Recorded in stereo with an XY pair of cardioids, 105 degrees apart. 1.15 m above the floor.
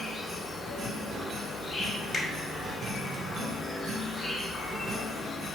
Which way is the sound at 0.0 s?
35° left.